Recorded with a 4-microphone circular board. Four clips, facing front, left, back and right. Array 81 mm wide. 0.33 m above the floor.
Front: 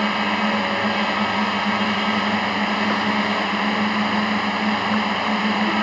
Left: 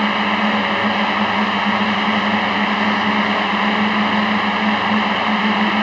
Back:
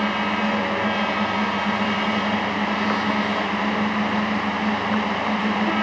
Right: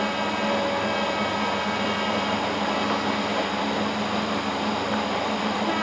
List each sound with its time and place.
0.0 s a drone: 80° left